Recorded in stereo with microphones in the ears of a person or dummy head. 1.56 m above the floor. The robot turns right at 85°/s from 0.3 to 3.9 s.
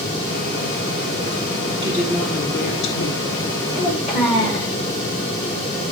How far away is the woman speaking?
About 1.5 m.